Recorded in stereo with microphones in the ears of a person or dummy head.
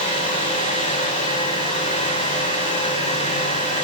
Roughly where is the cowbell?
I don't hear a cowbell.